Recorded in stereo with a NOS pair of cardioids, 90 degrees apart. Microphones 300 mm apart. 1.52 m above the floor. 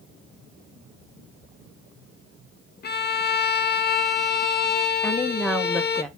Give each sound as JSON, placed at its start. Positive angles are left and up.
{"t": 2.8, "sound": "a violin", "azimuth_deg": 35, "distance_m": 0.8}
{"t": 5.0, "sound": "a woman speaking", "azimuth_deg": 0, "distance_m": 1.8}